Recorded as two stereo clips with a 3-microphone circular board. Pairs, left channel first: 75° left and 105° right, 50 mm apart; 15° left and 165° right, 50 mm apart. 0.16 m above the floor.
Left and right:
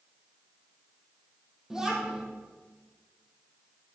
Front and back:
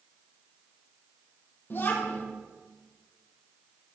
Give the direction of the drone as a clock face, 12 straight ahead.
No drone in this recording.